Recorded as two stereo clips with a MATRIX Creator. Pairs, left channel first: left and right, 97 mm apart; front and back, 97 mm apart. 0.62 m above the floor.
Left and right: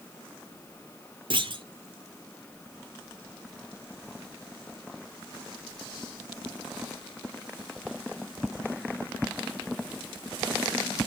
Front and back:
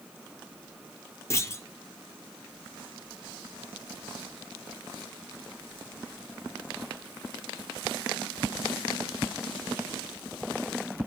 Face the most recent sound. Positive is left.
turn(degrees=-60)